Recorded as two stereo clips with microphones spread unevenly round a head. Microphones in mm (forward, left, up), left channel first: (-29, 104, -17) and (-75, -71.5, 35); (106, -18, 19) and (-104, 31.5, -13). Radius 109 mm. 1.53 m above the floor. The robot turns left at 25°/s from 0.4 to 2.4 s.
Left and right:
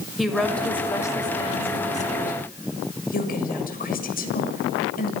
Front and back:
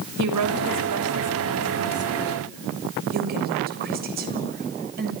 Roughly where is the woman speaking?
Behind.